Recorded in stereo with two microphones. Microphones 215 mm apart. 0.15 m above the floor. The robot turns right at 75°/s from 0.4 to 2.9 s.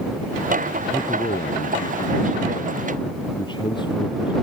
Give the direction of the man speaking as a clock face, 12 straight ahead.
12 o'clock.